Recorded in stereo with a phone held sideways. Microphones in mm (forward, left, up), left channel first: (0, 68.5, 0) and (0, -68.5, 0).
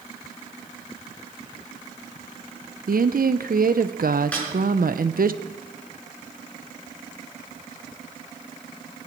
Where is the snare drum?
10° left (ahead or behind), 7 m.